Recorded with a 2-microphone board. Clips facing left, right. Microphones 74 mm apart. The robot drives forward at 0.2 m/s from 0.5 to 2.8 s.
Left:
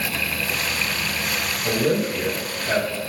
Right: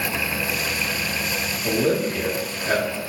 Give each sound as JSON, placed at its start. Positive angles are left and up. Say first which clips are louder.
{"t": 1.6, "sound": "a man speaking", "louder": "even", "side_deg": -30, "distance_m": 1.6}